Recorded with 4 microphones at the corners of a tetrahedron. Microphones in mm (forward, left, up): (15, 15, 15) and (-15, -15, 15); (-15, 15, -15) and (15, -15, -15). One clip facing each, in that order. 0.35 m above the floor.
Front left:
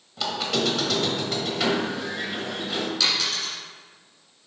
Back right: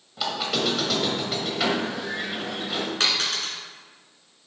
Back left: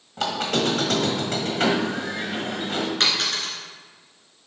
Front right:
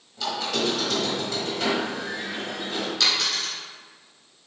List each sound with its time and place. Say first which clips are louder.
0.2 s a squeak: even, back left 3 dB; 140° left, 1.1 m
3.0 s a dropped coin: even, back left 1 dB; straight behind, 2 m